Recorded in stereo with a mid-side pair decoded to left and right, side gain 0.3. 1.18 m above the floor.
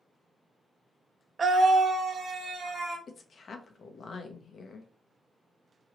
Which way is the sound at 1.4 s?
50° right.